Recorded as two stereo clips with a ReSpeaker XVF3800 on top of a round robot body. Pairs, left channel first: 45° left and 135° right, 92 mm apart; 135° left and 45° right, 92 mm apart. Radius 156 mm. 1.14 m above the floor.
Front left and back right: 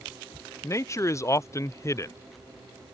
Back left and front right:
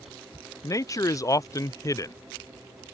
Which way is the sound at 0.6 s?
95° left.